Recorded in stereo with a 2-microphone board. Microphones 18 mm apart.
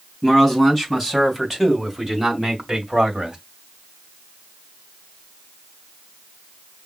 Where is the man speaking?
10° left (ahead or behind), 3 m; by 3.4 s 30° right (ahead or behind), 2 m.